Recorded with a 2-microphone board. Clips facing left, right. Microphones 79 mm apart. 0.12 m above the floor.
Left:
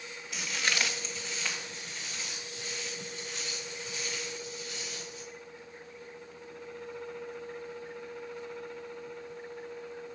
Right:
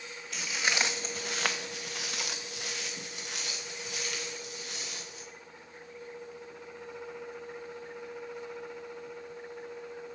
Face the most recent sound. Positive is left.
turn(degrees=-65)  # may be behind; listen again after turning